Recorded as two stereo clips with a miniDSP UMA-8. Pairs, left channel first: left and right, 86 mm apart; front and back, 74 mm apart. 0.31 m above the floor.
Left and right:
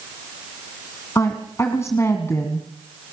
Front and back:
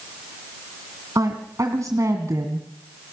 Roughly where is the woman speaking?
Behind left.